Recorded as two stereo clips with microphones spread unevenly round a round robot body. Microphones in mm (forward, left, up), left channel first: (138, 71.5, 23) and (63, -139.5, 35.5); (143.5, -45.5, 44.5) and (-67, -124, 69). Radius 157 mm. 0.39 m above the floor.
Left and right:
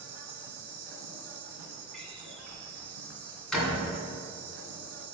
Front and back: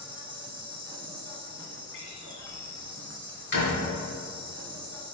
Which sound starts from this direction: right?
An insect, at 0.0 s.